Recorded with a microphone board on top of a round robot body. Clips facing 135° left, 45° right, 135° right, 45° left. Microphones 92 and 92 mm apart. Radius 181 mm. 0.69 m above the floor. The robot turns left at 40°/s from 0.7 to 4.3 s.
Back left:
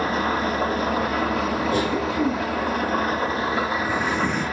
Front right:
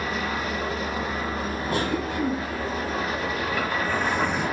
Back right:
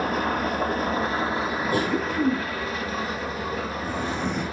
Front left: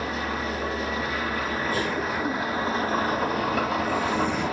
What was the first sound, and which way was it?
An engine running, straight behind.